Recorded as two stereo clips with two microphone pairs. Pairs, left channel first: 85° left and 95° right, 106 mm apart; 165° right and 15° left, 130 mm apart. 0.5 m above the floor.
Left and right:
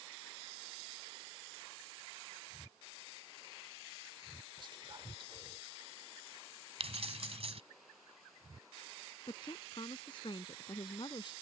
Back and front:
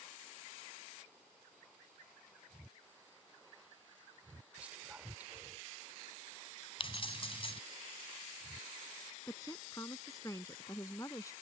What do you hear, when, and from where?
4.6 s whispering: 60° right
6.8 s keys jangling: 115° right
9.3 s a woman speaking: 130° left